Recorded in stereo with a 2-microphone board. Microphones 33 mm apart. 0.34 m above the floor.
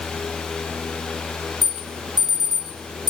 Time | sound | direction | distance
1.6 | an alarm | 20° right (ahead or behind) | 1.7 m